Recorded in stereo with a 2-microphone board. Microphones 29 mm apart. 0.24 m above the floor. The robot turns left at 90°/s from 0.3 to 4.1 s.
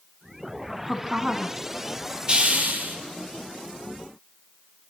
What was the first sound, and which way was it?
A woman speaking, 5° right (ahead or behind).